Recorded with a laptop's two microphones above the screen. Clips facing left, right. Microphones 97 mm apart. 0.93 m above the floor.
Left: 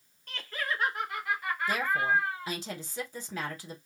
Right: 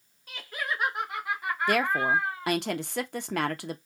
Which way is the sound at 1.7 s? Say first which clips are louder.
Right 3 dB; 65° right (ahead or behind).